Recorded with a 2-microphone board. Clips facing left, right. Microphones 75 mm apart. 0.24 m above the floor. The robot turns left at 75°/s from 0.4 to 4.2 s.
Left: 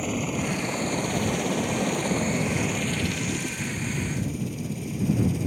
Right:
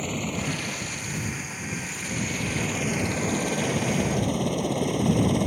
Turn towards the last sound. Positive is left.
turn(degrees=-65)  # may be behind; listen again after turning